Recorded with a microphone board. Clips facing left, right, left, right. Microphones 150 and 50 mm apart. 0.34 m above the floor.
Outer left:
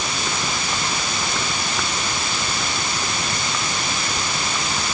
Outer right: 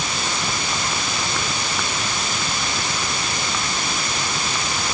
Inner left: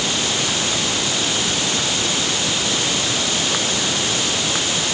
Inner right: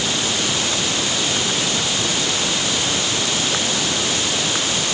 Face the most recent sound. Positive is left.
No sound to turn to.